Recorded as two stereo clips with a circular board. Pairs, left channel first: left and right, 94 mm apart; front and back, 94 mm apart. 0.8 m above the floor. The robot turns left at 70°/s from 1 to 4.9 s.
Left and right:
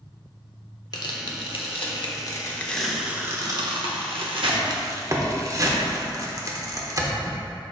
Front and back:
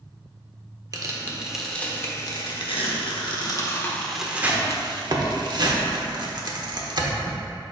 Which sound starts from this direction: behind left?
Tearing paper, at 0.9 s.